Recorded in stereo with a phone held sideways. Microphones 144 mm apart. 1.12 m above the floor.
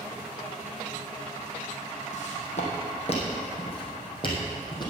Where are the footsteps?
60° left (ahead or behind), 3 m; by 4.9 s 30° left (ahead or behind), 2.5 m.